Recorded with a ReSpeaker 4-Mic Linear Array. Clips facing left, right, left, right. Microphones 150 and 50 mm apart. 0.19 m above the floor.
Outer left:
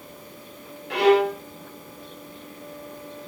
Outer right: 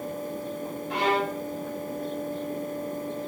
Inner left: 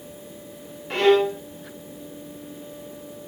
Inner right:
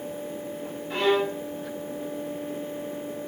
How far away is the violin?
About 0.7 m.